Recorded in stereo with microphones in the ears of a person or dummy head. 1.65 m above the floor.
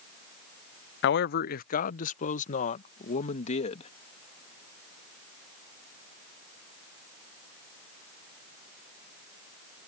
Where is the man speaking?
65° left (ahead or behind); by 3.9 s 40° left (ahead or behind).